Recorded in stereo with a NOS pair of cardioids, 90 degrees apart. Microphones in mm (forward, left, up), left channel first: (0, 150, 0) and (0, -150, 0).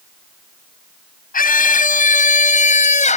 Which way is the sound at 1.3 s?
30° left.